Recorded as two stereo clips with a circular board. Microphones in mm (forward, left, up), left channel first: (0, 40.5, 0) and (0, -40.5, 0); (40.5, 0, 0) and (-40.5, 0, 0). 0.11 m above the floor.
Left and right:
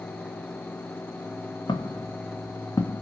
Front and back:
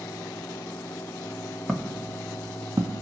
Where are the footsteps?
85° left, 0.9 m; by 3.0 s 155° left, 0.7 m.